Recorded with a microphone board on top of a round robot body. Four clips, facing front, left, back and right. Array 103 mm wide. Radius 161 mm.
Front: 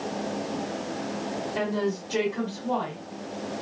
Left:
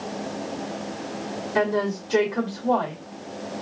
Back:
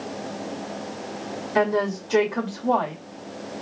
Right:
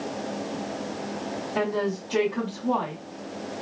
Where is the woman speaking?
155° left, 2.0 m.